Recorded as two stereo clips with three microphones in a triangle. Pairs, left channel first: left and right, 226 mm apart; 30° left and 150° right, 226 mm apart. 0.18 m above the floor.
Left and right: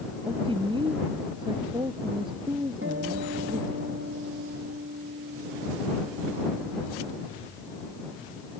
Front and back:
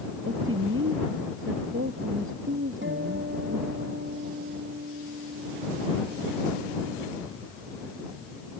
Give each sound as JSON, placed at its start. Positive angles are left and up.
{"t": 0.3, "sound": "a woman speaking", "azimuth_deg": -155}
{"t": 2.8, "sound": "a guitar", "azimuth_deg": -120}